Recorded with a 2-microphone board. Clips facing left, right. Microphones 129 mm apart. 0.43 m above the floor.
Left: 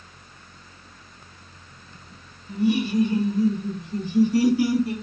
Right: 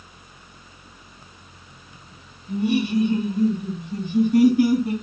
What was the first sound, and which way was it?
Laughter, 65° right (ahead or behind).